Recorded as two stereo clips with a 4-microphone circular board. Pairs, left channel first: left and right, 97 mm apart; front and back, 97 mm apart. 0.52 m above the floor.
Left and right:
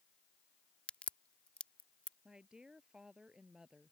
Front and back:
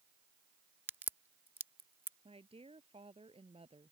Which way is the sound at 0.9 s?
150° left.